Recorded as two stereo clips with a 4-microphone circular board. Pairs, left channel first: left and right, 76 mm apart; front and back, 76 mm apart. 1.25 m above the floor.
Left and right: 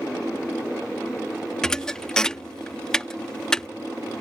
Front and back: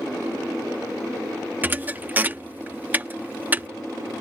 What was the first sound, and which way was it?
A thud, 160° left.